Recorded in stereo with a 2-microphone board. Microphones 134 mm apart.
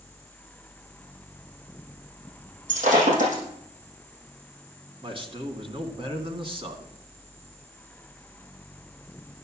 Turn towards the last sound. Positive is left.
turn(degrees=-40)  # may be behind; listen again after turning